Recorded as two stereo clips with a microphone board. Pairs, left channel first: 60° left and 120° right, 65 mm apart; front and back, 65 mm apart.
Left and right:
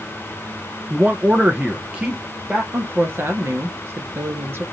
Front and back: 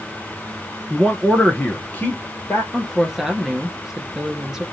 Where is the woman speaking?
100° right, 1.4 m.